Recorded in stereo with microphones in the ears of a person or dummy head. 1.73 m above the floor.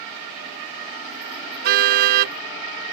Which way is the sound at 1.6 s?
50° right (ahead or behind).